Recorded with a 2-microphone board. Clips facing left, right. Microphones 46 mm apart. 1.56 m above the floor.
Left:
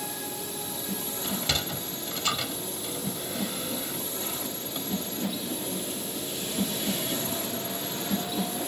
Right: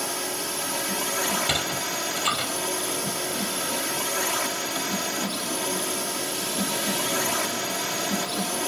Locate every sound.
0.0 s a drone: 70° right (ahead or behind)
1.2 s a sliding door: 20° right (ahead or behind)